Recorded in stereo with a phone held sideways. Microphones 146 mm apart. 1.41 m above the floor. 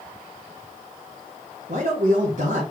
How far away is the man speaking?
About 1.4 m.